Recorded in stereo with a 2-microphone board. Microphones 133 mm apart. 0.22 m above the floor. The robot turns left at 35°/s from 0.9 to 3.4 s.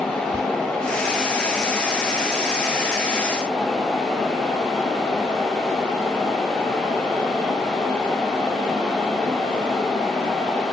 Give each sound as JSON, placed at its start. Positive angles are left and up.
{"t": 0.3, "sound": "whispering", "side_deg": -25, "distance_m": 1.2}